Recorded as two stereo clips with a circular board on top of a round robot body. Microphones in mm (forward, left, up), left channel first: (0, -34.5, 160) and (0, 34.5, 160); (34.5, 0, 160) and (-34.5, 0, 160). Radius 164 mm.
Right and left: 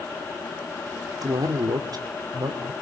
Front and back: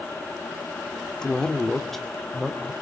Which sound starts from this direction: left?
A man speaking, at 1.2 s.